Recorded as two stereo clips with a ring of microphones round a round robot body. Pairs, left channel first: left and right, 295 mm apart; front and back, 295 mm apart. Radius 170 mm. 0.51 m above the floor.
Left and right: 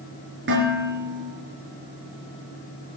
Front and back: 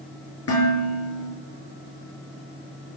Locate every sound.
0.5 s dishes clattering: 40° right, 7 m